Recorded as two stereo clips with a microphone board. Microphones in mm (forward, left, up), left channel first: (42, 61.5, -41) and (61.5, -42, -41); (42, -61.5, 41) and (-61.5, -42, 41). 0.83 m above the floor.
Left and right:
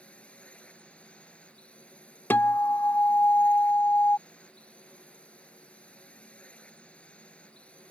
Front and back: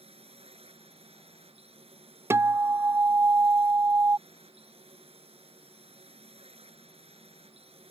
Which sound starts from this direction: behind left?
A guitar, at 2.3 s.